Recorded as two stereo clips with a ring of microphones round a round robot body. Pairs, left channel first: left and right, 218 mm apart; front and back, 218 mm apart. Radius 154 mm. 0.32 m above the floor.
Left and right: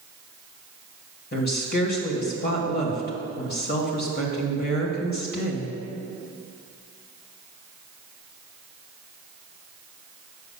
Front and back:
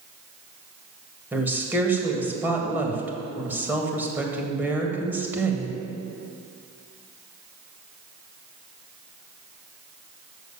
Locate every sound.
1.3 s a woman speaking: 100° left, 1.7 m